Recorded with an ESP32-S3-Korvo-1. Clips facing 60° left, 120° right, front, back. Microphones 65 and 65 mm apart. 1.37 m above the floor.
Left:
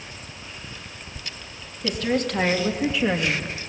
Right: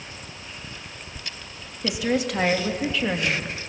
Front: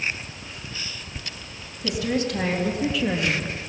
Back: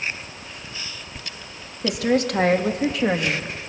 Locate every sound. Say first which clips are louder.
1.8 s a woman speaking: even, back 4 dB; 160° left, 2.5 m; by 3.5 s 135° left, 2.0 m